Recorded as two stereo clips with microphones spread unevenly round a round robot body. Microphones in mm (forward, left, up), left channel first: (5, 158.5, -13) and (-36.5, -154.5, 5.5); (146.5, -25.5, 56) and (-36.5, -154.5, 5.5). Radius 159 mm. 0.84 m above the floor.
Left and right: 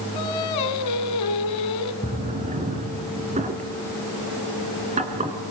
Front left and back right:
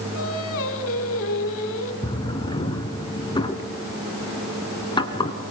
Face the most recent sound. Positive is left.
turn(degrees=-30)